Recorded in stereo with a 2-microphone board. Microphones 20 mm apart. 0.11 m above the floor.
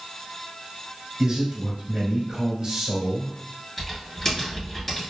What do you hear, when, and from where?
1.2 s a man speaking: 30° right (ahead or behind), 2.0 m
3.8 s typing on a keyboard: 15° left (ahead or behind), 1.9 m